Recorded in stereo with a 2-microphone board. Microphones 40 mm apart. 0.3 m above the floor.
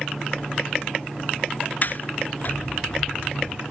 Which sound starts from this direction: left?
A sliding door, at 1.8 s.